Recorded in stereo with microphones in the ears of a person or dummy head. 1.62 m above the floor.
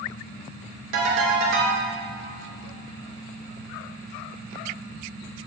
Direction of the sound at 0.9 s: 70° right (ahead or behind).